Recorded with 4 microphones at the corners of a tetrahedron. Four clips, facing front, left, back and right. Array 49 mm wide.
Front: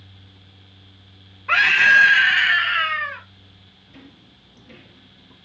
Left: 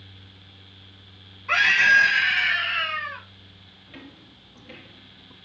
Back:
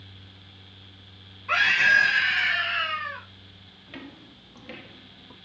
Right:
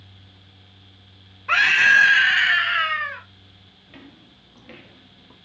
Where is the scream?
25° right, 1.6 m; by 3.2 s 40° right, 2.5 m.